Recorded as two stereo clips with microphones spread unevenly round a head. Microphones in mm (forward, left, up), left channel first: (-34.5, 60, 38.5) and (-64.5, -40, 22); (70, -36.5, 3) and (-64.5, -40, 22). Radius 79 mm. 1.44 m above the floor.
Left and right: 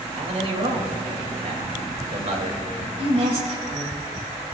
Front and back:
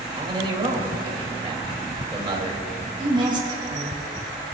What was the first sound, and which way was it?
A man speaking, 125° right.